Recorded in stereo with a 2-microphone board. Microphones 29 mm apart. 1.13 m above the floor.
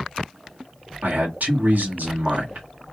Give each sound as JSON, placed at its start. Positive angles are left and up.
{"t": 1.0, "sound": "a man speaking", "side_deg": -85, "distance_m": 1.7}